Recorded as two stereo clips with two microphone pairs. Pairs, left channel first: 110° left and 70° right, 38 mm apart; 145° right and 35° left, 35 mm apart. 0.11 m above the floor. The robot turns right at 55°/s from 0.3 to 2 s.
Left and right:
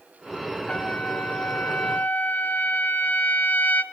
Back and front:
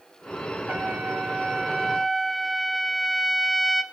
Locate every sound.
0.7 s a trumpet: 55° left, 1.4 m; by 3.8 s 125° left, 1.4 m